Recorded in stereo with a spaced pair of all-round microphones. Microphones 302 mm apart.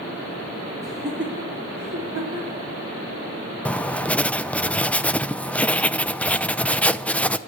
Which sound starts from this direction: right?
Laughter, at 0.8 s.